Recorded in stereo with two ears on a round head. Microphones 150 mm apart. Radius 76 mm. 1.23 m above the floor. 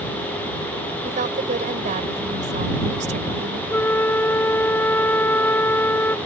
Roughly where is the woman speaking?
Right.